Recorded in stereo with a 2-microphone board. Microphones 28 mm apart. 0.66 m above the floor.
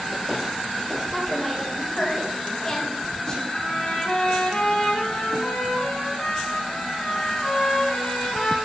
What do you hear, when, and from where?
1.1 s a woman speaking: centre (ahead or behind), 2 m; by 3.4 s 30° left (ahead or behind), 4 m
3.5 s a trumpet: 45° left (ahead or behind), 2.5 m